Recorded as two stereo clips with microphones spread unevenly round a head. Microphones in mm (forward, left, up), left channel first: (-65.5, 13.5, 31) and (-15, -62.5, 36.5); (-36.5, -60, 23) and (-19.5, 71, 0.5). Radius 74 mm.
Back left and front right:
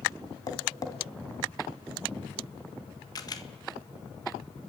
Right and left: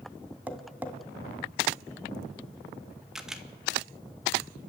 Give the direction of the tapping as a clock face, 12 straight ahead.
6 o'clock.